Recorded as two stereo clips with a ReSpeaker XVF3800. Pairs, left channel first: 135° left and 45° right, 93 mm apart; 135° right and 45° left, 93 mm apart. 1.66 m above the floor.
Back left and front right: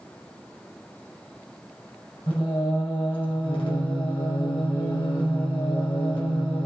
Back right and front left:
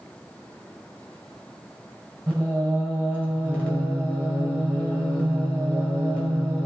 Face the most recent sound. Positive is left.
turn(degrees=150)